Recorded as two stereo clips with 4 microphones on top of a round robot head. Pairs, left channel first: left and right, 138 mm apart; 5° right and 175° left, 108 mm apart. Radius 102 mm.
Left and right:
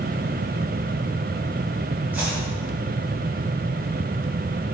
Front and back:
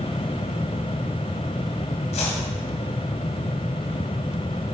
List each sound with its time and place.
2.1 s chopping: 10° right, 2.0 m